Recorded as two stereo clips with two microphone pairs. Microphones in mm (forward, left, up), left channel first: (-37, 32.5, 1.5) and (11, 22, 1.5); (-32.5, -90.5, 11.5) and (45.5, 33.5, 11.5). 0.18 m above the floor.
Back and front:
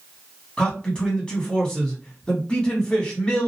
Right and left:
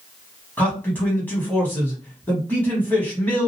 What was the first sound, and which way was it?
A man speaking, 175° right.